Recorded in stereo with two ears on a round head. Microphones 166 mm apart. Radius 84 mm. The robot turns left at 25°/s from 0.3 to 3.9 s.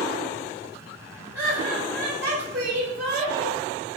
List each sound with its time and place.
1.3 s laughter: 85° right, 1.7 m; by 3.6 s 140° right, 1.7 m